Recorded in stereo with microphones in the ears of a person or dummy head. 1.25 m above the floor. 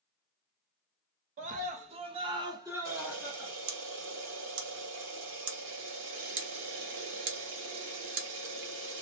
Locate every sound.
1.4 s a scream: 40° right (ahead or behind), 0.7 m; by 3.5 s 10° right (ahead or behind), 1.2 m
2.9 s a camera shutter: 65° right (ahead or behind), 1.2 m